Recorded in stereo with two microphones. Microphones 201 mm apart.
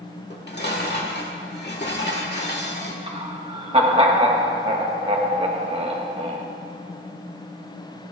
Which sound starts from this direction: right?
Laughter, at 3.1 s.